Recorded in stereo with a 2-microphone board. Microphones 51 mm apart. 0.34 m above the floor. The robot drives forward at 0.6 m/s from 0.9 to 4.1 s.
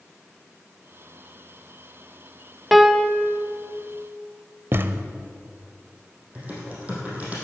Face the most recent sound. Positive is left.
turn(degrees=-30)  # may be behind; listen again after turning